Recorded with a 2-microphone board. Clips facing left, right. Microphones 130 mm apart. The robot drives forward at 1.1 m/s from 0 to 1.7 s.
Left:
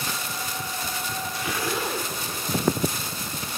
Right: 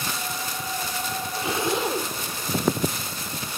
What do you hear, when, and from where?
1.3 s a zipper: 30° right (ahead or behind), 1.3 m; by 2.2 s 25° right (ahead or behind), 1.7 m